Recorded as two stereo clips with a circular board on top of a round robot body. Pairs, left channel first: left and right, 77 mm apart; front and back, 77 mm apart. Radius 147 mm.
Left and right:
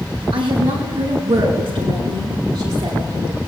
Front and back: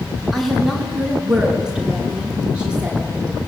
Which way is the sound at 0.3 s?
90° right.